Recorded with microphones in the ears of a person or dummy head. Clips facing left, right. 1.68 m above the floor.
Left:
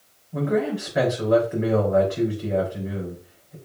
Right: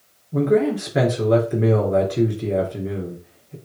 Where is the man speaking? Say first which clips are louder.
Right 6 dB; 40° right (ahead or behind), 4.5 m.